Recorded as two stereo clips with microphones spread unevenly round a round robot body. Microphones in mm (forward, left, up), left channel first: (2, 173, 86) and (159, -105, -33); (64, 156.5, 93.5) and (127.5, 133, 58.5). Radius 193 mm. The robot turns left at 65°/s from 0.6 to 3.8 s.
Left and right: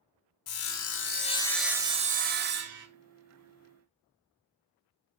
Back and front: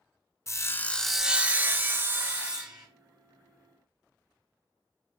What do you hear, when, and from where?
0.5 s sawing: 75° left, 0.5 m; by 2.9 s 70° right, 0.5 m